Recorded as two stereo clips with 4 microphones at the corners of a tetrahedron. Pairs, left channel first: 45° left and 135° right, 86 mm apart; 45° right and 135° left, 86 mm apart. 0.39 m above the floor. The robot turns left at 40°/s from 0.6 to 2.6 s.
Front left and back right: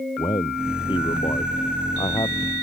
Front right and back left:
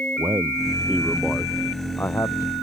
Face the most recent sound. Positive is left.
turn(degrees=-5)